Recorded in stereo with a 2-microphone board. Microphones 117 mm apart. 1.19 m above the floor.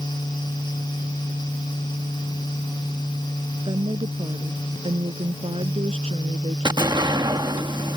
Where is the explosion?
40° right (ahead or behind).